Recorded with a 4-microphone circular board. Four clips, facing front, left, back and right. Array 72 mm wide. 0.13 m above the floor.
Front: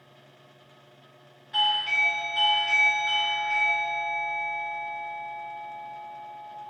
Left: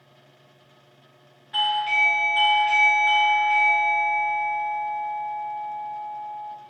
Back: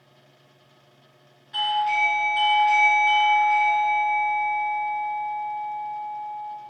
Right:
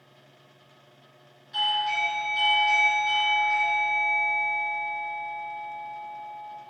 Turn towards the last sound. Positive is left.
turn(degrees=85)